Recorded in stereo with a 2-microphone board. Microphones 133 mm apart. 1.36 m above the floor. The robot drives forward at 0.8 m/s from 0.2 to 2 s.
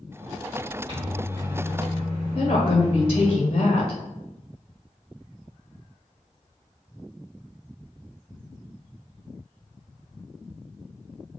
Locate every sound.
0.9 s a microwave: 40° right (ahead or behind), 1.5 m; by 3.4 s 65° right (ahead or behind), 1.1 m
2.4 s a woman speaking: 45° left (ahead or behind), 0.6 m